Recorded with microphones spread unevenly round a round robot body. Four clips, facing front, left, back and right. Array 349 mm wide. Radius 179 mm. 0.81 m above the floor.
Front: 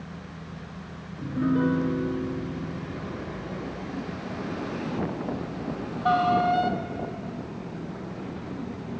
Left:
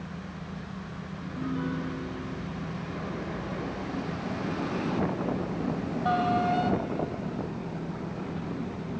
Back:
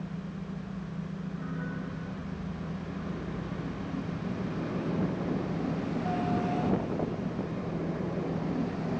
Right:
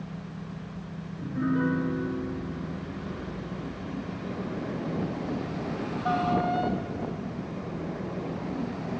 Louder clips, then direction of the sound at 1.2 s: Right 6 dB, front 18 dB; 25° right.